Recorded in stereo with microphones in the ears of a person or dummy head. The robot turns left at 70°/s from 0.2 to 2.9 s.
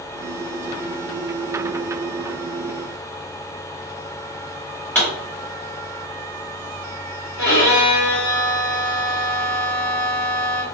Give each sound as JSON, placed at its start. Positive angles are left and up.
{"t": 5.0, "sound": "a pop", "side_deg": 10, "distance_m": 2.5}
{"t": 7.4, "sound": "a violin", "side_deg": 20, "distance_m": 1.9}